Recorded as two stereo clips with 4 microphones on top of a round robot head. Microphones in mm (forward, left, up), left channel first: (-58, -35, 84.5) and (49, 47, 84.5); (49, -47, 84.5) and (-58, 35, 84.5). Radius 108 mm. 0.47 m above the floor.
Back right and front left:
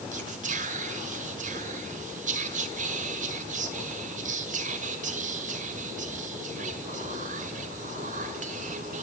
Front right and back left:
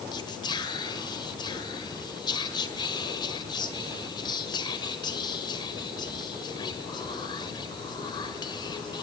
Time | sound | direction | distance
0.1 | whispering | 20° left | 1.9 m